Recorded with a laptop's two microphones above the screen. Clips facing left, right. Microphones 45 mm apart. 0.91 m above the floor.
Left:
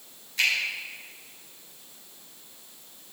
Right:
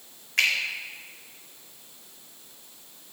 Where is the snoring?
No snoring in this recording.